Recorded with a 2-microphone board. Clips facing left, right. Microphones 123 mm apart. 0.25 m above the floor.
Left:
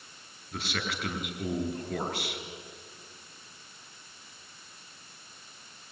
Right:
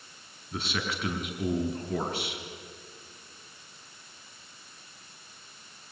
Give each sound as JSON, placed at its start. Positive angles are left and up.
{"t": 0.5, "sound": "a man speaking", "side_deg": 0, "distance_m": 4.5}